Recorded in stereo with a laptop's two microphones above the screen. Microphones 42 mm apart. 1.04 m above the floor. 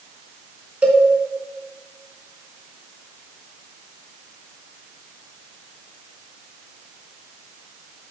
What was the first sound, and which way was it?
A cowbell, 30° right (ahead or behind).